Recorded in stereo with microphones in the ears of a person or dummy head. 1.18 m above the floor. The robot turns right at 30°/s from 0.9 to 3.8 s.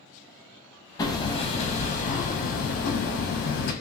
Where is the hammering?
25° left, 0.6 m; by 3.7 s 105° left, 0.6 m.